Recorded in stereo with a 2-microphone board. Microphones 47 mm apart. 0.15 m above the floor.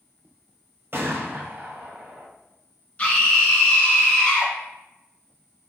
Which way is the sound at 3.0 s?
25° left (ahead or behind).